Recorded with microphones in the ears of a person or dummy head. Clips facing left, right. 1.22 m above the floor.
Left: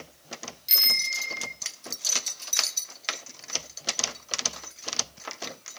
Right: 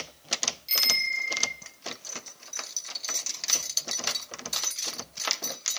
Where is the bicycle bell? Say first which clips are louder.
Right 2 dB; 20° left (ahead or behind), 4 m.